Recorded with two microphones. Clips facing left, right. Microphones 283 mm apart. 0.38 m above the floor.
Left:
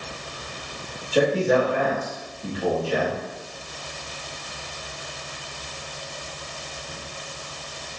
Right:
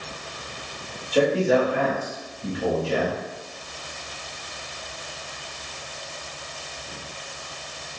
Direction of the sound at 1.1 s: 5° left (ahead or behind).